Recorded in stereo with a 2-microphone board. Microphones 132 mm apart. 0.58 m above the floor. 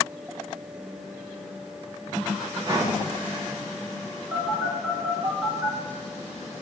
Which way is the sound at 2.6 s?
30° right (ahead or behind).